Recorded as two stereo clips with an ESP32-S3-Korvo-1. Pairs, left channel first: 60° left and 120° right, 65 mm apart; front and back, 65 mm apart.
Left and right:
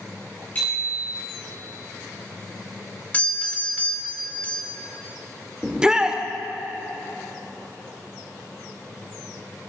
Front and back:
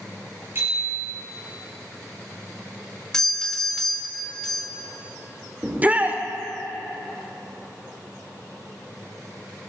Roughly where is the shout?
Behind.